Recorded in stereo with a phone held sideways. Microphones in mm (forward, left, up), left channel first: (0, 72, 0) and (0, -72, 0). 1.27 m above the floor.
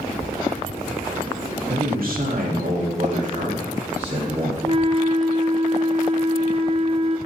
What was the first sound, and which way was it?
A man speaking, 80° right.